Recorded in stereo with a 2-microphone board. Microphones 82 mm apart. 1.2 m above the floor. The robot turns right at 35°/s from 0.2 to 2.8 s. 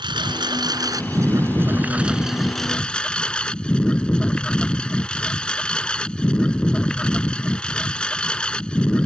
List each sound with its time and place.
0.0 s a lawn mower: 80° right; by 9.1 s 10° left